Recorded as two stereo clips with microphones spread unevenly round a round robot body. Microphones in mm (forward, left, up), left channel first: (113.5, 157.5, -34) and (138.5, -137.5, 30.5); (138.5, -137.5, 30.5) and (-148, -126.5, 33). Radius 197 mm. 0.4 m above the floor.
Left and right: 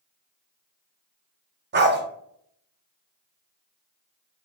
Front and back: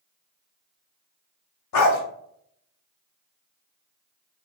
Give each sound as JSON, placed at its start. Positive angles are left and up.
{"t": 1.7, "sound": "a dog barking", "azimuth_deg": -20, "distance_m": 0.6}